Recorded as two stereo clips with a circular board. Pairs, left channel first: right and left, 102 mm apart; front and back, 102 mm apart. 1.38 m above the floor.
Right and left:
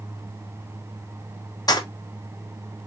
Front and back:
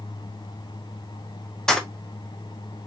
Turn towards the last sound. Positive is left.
turn(degrees=-80)